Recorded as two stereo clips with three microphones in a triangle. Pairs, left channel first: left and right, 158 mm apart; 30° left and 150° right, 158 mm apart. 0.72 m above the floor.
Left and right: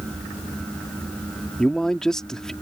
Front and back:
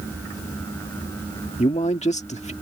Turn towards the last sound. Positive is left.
turn(degrees=5)